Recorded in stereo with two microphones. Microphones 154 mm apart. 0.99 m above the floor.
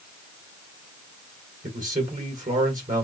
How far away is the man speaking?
About 2.5 m.